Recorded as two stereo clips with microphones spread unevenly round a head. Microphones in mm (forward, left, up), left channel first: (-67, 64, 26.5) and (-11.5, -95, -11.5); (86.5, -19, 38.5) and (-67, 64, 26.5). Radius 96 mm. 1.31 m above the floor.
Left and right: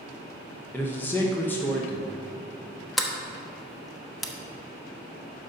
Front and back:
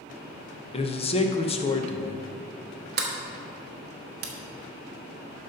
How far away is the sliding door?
About 1.1 m.